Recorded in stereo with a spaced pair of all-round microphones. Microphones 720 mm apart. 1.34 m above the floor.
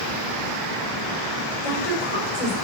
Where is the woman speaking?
55° left (ahead or behind), 5 m.